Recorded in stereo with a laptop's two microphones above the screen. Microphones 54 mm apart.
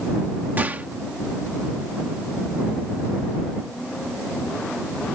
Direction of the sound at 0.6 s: 30° right (ahead or behind).